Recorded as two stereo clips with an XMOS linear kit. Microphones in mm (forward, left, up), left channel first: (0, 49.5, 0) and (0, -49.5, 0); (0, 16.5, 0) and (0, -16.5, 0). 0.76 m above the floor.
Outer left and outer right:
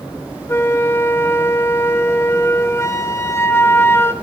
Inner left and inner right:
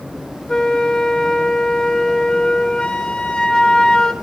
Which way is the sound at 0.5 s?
25° left (ahead or behind).